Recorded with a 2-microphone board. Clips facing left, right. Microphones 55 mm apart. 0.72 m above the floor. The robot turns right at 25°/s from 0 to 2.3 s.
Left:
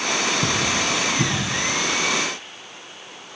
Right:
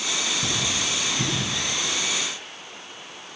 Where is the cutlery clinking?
35° left (ahead or behind), 4 m; by 1.4 s 10° left (ahead or behind), 4 m.